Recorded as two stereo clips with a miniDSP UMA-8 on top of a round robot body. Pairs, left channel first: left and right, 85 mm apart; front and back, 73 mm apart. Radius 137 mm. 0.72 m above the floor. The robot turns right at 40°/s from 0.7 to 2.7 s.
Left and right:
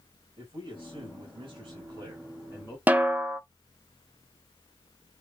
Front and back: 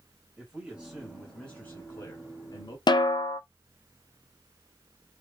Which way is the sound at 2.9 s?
20° right.